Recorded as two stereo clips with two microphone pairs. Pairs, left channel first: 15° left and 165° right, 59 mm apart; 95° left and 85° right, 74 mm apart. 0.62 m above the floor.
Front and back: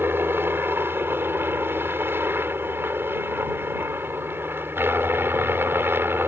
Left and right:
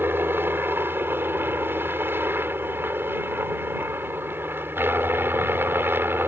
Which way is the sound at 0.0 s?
135° right.